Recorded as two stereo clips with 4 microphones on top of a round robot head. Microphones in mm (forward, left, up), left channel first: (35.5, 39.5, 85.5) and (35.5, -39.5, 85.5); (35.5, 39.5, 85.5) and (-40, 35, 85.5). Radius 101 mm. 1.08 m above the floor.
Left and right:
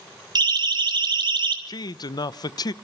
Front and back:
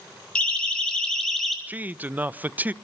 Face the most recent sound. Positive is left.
turn(degrees=115)